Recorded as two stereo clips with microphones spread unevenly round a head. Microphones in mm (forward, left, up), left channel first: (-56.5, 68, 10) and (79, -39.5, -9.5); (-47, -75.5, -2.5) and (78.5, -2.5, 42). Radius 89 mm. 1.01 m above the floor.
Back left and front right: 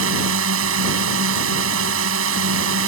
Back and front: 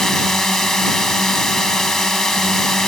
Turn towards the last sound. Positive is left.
turn(degrees=-60)